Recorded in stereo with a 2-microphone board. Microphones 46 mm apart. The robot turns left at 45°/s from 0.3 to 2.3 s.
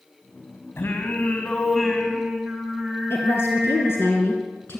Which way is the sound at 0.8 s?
60° left.